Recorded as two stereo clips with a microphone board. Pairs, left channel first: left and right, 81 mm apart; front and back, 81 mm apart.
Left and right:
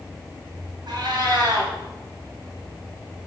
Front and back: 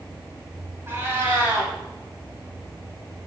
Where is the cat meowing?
120° right, 1.5 m.